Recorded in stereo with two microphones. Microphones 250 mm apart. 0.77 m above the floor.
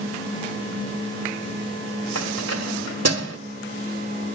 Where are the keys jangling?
80° right, 2.5 m.